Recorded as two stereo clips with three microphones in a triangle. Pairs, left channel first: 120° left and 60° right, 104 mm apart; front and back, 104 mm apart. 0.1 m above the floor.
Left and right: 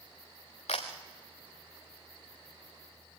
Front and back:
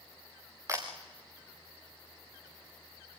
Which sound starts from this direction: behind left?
A camera shutter, at 0.7 s.